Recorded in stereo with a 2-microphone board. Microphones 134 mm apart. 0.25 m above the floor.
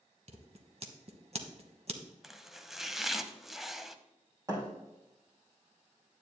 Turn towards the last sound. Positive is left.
turn(degrees=-25)  # may be behind; listen again after turning